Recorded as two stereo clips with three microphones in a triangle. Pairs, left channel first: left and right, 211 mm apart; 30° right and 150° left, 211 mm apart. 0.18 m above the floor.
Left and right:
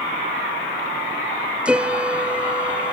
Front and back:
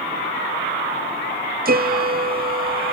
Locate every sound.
1.6 s a piano: 175° right, 0.6 m